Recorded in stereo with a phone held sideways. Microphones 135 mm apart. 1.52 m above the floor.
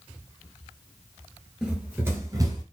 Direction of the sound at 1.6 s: 5° right (ahead or behind).